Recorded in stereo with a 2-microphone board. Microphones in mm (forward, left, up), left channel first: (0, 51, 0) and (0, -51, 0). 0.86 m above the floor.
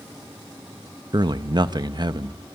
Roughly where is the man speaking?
Right.